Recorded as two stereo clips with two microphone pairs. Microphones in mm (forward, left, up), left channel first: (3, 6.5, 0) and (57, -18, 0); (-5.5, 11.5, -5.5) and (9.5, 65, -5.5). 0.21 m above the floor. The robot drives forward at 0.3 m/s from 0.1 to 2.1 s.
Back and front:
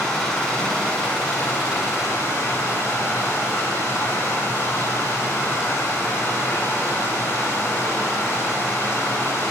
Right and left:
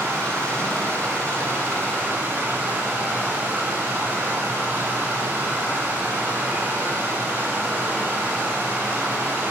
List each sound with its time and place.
0.0 s running water: 80° left, 1.1 m; by 9.5 s 115° left, 1.2 m